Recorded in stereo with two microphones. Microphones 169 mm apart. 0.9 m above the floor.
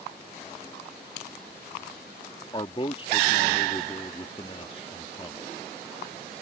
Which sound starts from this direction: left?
A man speaking, at 2.5 s.